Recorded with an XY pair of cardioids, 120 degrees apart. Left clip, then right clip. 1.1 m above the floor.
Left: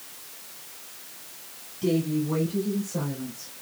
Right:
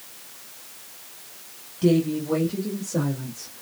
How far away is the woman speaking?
About 1.4 m.